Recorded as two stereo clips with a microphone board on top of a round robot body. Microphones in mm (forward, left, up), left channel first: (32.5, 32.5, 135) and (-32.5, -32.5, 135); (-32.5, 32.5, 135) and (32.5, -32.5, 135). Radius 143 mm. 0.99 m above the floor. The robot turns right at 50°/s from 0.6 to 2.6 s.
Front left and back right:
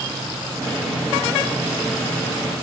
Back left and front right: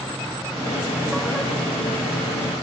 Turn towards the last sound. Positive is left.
No sound to turn to.